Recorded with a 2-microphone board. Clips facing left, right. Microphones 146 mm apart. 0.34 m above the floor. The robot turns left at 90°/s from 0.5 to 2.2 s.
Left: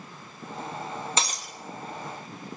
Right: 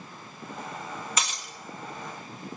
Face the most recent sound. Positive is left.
turn(degrees=60)